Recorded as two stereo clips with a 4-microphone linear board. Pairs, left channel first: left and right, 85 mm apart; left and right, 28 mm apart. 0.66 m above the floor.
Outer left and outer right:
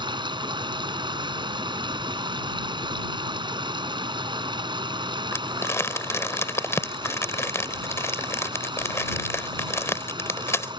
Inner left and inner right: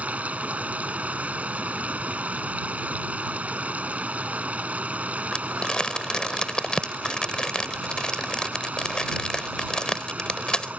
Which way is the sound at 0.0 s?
65° right (ahead or behind).